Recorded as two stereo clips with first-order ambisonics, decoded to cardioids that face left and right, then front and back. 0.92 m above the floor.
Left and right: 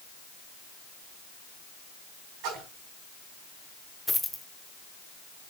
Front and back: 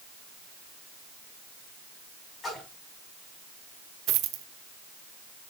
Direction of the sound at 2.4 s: 70° right.